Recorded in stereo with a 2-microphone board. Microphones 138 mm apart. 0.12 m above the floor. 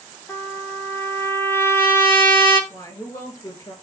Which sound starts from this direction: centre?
A trumpet, at 0.3 s.